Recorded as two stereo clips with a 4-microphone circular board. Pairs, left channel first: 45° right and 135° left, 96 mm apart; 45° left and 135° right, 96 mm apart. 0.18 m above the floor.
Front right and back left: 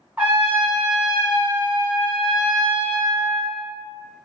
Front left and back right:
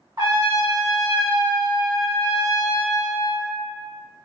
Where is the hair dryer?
No hair dryer in this recording.